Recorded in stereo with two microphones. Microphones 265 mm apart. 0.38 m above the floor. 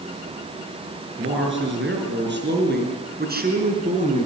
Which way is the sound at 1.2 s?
45° right (ahead or behind).